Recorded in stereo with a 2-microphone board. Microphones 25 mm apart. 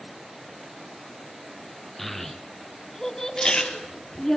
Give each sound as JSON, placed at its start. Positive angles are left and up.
{"t": 2.0, "sound": "a child speaking", "side_deg": 10, "distance_m": 1.7}
{"t": 3.4, "sound": "chewing", "side_deg": 25, "distance_m": 2.5}